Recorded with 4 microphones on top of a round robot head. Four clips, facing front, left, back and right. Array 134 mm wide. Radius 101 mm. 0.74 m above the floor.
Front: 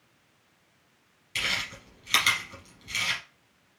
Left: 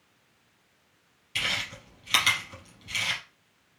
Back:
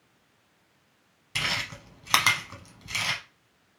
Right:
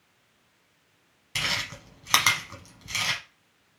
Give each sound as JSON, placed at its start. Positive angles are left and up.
{"t": 1.4, "sound": "chewing", "azimuth_deg": -140, "distance_m": 1.0}